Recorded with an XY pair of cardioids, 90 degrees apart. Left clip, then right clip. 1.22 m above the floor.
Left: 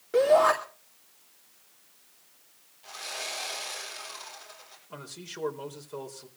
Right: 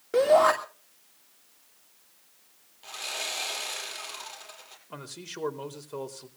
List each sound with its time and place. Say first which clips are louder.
0.1 s a shout: right 1 dB; 30° right, 2.5 m
2.8 s sawing: right 3 dB; 65° right, 7.5 m
4.9 s a man speaking: right 1 dB; 30° right, 3.5 m